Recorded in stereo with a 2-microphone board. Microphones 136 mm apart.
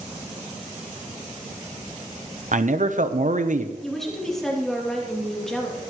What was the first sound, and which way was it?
A man speaking, 65° right (ahead or behind).